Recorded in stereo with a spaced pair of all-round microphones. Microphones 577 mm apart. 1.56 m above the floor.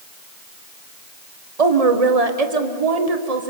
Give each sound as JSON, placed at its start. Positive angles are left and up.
{"t": 1.6, "sound": "a woman speaking", "side_deg": -80, "distance_m": 1.3}